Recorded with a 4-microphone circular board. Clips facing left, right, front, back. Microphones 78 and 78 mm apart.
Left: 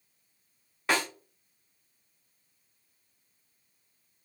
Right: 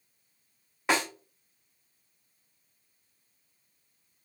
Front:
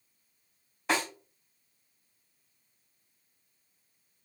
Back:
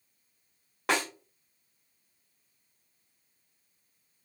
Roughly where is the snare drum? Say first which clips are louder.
Right 1 dB, back 1 dB; behind.